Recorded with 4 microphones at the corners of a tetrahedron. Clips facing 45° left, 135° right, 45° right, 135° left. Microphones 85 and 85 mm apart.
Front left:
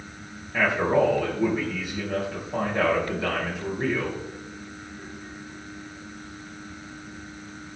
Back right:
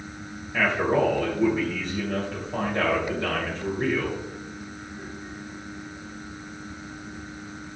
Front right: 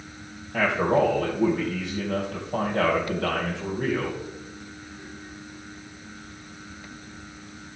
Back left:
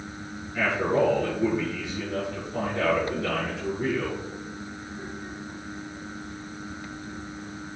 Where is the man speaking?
40° right, 2.5 m.